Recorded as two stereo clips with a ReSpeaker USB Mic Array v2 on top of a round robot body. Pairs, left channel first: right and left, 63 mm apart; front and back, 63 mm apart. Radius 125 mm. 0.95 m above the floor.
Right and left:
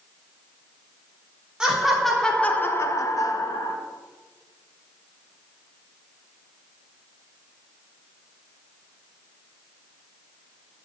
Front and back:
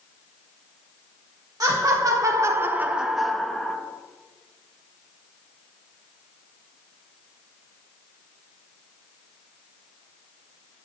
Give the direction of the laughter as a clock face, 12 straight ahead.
6 o'clock.